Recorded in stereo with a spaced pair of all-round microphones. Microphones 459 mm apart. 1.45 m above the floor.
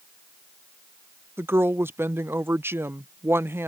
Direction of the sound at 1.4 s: 5° right (ahead or behind).